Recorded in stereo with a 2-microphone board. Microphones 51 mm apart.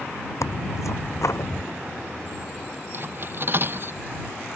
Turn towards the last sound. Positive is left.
turn(degrees=-45)  # may be behind; listen again after turning